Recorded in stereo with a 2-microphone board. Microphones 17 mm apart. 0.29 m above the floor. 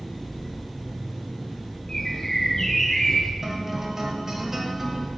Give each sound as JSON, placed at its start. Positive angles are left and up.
{"t": 0.0, "sound": "an engine running", "side_deg": 20, "distance_m": 3.0}
{"t": 1.9, "sound": "a bird", "side_deg": 30, "distance_m": 0.8}
{"t": 3.4, "sound": "a guitar", "side_deg": -30, "distance_m": 0.9}